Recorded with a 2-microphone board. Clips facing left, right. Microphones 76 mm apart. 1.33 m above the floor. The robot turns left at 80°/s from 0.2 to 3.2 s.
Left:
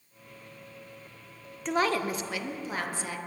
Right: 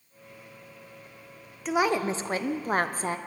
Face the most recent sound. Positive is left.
turn(degrees=-125)